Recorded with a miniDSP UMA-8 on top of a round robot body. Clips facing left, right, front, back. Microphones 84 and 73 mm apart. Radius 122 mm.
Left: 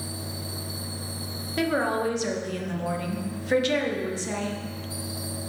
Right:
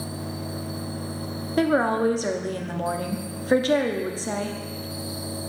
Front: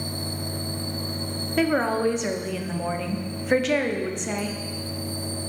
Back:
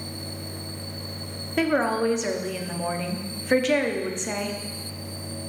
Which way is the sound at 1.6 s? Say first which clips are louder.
Right 4 dB, even; 90° right.